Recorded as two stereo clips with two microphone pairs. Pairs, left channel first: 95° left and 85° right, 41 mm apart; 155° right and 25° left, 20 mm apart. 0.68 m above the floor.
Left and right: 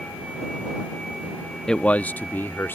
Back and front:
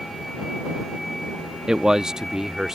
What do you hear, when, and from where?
1.7 s a man speaking: 35° left; by 2.8 s 85° left